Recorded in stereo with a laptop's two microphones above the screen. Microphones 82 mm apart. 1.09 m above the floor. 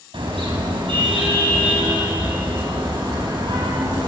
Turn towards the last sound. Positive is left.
turn(degrees=-65)  # may be behind; listen again after turning